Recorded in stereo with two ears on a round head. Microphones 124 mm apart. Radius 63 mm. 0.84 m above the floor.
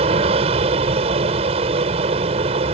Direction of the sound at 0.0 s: 45° right (ahead or behind).